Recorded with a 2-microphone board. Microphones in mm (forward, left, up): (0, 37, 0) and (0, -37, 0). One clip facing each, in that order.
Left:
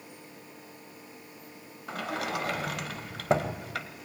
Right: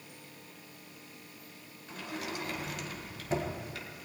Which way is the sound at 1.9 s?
85° left.